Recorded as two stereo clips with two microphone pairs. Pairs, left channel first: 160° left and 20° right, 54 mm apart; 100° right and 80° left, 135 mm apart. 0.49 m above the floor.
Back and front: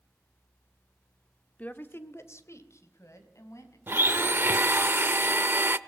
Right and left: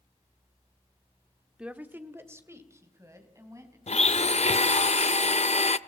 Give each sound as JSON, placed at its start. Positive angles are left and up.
{"t": 1.6, "sound": "a woman speaking", "azimuth_deg": 155, "distance_m": 1.0}
{"t": 3.9, "sound": "a blender", "azimuth_deg": -70, "distance_m": 0.5}